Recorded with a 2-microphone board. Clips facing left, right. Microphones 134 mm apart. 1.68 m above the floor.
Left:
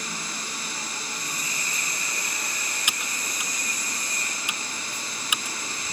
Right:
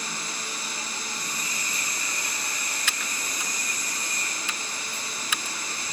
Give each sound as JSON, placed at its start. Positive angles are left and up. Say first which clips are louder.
{"t": 2.9, "sound": "typing on a keyboard", "louder": "even", "side_deg": 15}